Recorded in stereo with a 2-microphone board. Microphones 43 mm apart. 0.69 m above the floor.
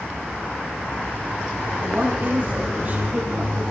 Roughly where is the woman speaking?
Right.